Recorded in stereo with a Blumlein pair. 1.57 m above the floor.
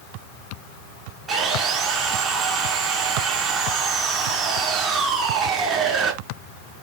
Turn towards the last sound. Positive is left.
turn(degrees=-20)